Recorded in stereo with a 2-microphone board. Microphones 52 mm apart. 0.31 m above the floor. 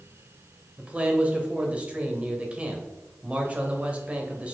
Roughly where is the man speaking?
Right.